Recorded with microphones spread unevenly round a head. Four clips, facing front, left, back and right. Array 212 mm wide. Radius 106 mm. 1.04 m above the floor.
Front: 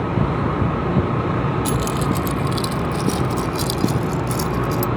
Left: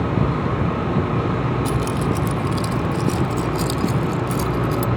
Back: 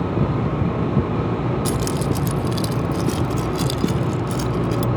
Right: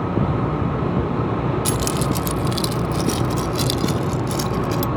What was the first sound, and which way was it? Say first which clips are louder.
Keys jangling: even, front 1 dB; 95° right.